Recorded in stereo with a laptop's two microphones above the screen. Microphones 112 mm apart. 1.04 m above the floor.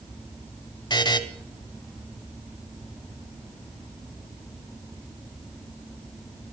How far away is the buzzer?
About 1.1 m.